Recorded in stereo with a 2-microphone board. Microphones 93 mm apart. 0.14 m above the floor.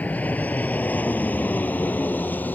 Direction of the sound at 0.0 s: 15° left (ahead or behind).